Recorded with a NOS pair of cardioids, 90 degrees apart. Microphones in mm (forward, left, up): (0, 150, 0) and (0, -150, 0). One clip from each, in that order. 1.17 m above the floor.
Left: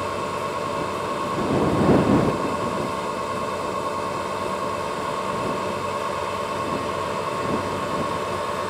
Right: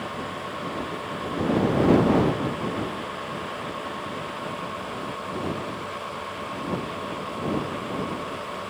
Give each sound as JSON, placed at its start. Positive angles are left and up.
{"t": 0.0, "sound": "a machine running", "azimuth_deg": 55}